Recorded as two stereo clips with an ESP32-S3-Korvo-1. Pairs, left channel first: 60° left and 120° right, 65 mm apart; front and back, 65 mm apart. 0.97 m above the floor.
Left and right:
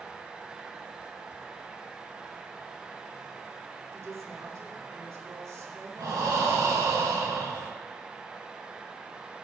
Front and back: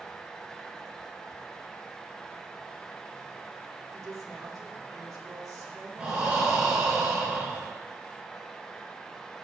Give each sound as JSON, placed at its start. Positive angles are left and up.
{"t": 3.9, "sound": "a woman speaking", "azimuth_deg": -155, "distance_m": 3.0}
{"t": 6.0, "sound": "breathing", "azimuth_deg": -115, "distance_m": 5.5}